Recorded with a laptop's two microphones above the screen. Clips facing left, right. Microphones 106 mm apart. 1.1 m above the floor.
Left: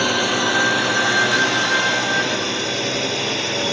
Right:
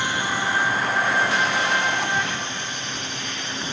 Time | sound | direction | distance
0.0 | a drone | 60° left (ahead or behind) | ?